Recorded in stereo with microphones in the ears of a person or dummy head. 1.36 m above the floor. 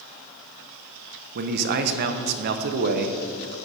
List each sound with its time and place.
1.4 s a man speaking: 55° right (ahead or behind), 0.6 m